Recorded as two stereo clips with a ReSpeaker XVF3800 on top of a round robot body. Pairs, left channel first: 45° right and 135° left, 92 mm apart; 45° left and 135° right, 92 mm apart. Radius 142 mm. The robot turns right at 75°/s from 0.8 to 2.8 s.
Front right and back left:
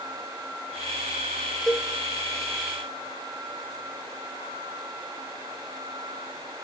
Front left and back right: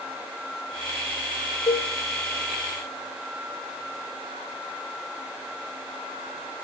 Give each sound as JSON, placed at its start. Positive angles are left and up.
{"t": 1.7, "sound": "a cowbell", "azimuth_deg": 40, "distance_m": 0.6}